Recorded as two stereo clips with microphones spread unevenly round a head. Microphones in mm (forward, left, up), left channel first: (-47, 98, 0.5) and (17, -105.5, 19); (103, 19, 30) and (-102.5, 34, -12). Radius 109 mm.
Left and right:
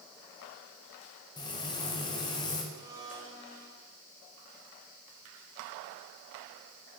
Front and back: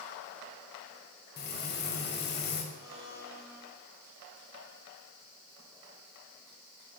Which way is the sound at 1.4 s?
35° left.